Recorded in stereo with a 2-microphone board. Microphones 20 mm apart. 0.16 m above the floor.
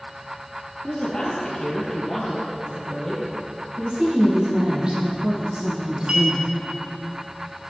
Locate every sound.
0.8 s a woman speaking: 30° left (ahead or behind), 3 m; by 3.2 s 10° right (ahead or behind), 3.5 m
3.8 s a woman speaking: 45° right (ahead or behind), 3.5 m
6.1 s a clink: 60° right (ahead or behind), 2.5 m